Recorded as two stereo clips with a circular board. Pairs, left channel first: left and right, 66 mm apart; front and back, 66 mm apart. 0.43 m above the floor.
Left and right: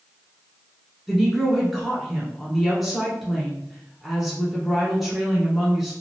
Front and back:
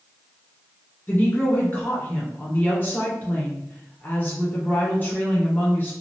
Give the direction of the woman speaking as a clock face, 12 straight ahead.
12 o'clock.